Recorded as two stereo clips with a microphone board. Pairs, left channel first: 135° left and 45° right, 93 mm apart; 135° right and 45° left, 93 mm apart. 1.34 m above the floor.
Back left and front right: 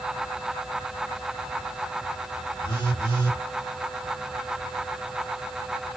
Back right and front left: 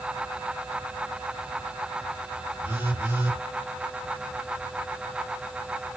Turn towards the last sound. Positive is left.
turn(degrees=105)